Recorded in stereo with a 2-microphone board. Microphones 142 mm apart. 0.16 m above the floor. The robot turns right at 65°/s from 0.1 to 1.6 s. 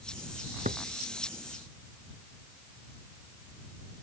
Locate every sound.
0.7 s a drawer: 75° right (ahead or behind); by 0.8 s 65° right (ahead or behind)